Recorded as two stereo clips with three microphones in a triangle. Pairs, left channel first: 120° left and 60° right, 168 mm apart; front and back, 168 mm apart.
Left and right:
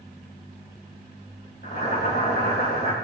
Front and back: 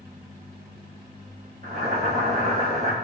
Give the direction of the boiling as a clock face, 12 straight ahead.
7 o'clock.